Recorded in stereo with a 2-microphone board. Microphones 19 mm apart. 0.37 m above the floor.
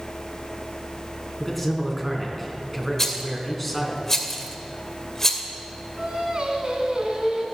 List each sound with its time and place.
1.4 s a man speaking: 5° left (ahead or behind), 3.5 m
3.0 s a rattle: 20° left (ahead or behind), 1.7 m
6.0 s singing: 55° right (ahead or behind), 3 m